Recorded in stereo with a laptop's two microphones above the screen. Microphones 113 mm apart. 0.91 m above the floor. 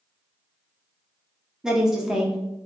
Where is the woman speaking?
5° right (ahead or behind), 0.6 m.